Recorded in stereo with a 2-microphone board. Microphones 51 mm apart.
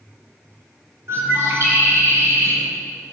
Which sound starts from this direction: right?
A bird, at 1.1 s.